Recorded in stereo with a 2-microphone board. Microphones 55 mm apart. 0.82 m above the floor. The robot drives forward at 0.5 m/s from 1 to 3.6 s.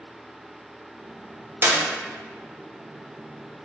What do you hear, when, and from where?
1.6 s a clap: 40° right (ahead or behind), 0.8 m; by 1.8 s 45° right (ahead or behind), 0.8 m